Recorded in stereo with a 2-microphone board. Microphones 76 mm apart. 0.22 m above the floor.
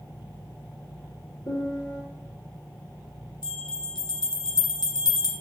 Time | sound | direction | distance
1.5 | a piano | 45° left (ahead or behind) | 3.5 m
3.4 | a bell | 65° left (ahead or behind) | 2 m